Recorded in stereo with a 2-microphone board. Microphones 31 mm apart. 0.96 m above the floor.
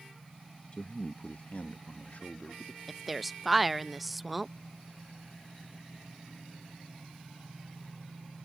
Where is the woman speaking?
Centre (ahead or behind).